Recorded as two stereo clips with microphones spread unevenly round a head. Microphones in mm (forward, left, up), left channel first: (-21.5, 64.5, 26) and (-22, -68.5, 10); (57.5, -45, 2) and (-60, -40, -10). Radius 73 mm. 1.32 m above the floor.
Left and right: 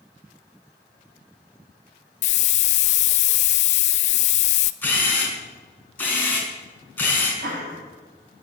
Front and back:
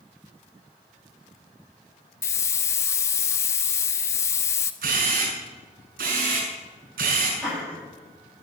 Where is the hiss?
60° left, 0.6 m.